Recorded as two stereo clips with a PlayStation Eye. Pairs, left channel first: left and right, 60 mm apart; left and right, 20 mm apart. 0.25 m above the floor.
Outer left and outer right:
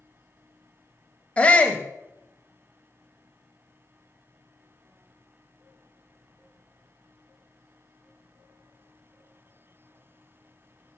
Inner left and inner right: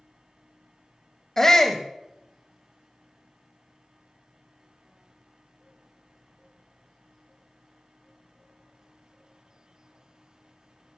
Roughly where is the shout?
Left.